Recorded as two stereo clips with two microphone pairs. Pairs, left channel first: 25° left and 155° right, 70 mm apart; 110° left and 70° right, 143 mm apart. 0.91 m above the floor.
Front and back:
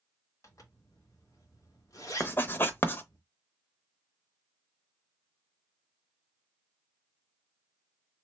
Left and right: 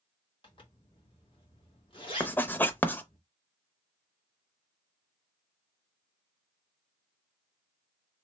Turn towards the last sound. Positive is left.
turn(degrees=45)